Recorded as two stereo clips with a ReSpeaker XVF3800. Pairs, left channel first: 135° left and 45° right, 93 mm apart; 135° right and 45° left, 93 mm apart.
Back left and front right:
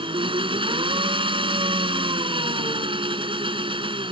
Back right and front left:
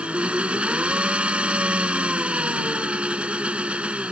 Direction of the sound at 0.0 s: 30° right.